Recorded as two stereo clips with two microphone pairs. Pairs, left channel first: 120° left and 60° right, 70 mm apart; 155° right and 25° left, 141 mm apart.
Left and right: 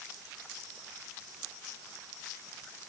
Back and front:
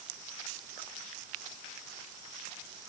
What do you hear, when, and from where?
Only background noise.